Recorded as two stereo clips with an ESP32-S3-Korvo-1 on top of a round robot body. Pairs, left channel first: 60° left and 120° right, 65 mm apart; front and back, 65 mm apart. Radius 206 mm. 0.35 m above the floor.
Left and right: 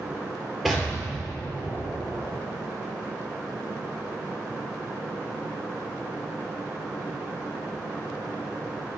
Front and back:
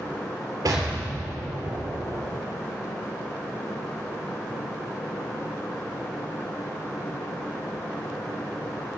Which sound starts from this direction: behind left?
An explosion, at 0.7 s.